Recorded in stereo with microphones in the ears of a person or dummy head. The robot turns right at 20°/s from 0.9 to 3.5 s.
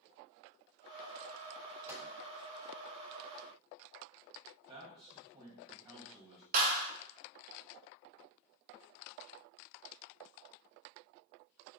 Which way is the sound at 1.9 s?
15° right (ahead or behind).